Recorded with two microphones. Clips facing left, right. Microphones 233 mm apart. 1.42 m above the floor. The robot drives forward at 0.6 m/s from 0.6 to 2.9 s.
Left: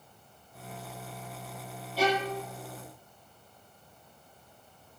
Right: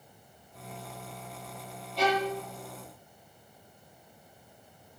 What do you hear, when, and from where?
2.0 s a violin: 5° left (ahead or behind), 8 m